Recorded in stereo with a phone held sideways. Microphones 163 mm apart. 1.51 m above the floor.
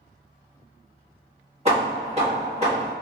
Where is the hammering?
40° right (ahead or behind), 1.4 m.